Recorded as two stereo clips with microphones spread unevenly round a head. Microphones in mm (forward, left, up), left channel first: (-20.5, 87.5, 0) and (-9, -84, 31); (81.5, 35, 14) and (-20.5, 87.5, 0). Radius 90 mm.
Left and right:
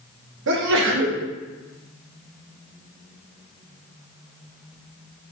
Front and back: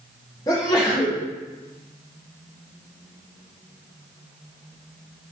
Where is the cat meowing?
I don't hear a cat meowing.